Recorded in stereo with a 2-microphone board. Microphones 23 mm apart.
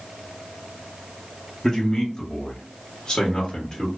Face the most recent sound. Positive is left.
turn(degrees=20)  # may be behind; listen again after turning